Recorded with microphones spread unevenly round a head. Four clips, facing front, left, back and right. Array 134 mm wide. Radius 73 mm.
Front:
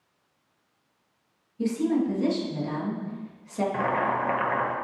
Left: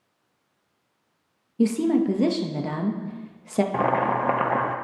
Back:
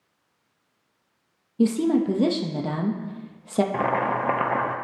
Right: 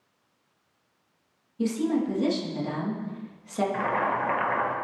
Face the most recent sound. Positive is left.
turn(degrees=115)